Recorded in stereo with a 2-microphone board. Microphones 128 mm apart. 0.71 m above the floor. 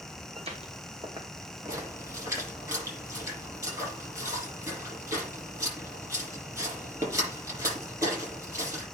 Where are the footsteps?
55° right (ahead or behind), 2 m; by 2.6 s 10° left (ahead or behind), 2.0 m.